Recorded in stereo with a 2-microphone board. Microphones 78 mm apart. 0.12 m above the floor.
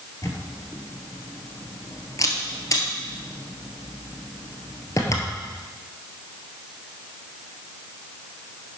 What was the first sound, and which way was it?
A camera shutter, 45° left (ahead or behind).